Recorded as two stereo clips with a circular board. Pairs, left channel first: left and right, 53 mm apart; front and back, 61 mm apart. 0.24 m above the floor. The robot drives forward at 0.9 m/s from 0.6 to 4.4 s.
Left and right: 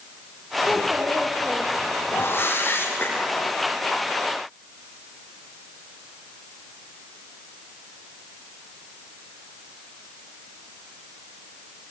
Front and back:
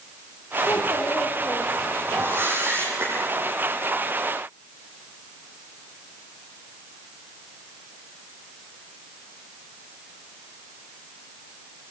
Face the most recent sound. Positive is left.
turn(degrees=140)